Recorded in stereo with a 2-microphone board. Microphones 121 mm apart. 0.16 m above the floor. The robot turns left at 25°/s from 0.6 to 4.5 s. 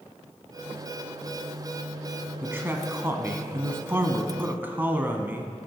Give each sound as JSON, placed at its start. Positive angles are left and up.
{"t": 2.4, "sound": "a man speaking", "side_deg": -20, "distance_m": 1.0}